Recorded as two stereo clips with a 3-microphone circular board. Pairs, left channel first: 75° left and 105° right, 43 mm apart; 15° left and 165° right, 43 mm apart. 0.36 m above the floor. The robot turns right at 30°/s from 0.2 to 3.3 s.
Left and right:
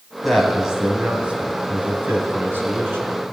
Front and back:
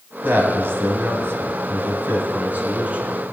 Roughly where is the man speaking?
Behind.